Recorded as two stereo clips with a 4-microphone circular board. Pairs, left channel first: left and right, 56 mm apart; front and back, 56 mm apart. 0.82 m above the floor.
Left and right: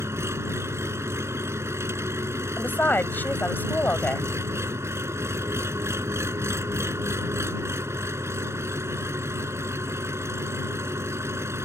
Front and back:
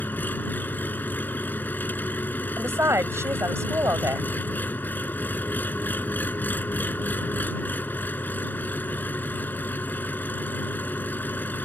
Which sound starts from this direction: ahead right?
An engine running, at 0.0 s.